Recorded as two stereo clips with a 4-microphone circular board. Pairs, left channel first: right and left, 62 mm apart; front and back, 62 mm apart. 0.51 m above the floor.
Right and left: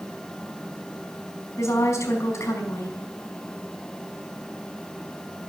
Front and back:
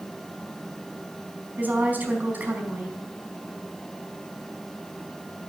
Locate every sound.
1.6 s a woman speaking: 120° right, 4.5 m